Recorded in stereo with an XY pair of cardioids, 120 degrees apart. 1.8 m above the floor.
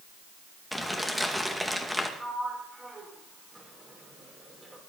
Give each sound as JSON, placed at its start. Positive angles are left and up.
{"t": 0.7, "sound": "crumpling", "azimuth_deg": -5, "distance_m": 2.5}
{"t": 2.2, "sound": "a sliding door", "azimuth_deg": -25, "distance_m": 5.5}